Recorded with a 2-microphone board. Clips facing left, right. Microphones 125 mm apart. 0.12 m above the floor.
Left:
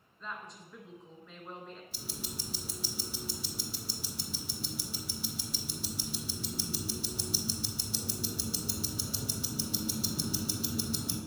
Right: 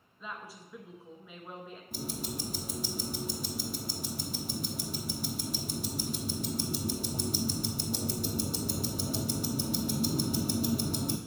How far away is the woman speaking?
About 1.2 m.